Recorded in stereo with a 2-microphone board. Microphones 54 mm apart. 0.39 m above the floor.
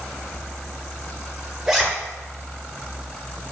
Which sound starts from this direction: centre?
A zipper, at 1.7 s.